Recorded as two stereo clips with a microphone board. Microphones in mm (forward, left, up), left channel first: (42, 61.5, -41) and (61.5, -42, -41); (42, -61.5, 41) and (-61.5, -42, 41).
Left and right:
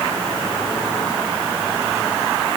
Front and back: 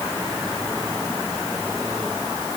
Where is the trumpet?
No trumpet in this recording.